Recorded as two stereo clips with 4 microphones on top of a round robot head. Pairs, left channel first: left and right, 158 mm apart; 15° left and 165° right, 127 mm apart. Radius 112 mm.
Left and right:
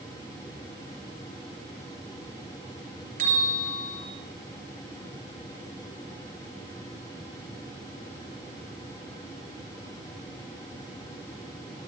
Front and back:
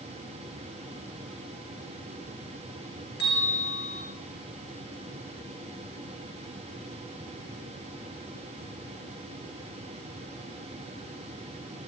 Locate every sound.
3.2 s a bell: 45° right, 4 m